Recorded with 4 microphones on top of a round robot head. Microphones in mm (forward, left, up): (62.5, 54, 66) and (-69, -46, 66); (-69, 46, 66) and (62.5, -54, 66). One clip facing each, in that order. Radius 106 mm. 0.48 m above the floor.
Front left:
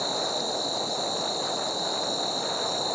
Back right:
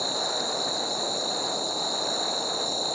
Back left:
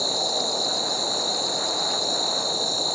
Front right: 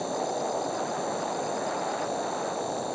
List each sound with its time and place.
0.0 s an insect: 140° left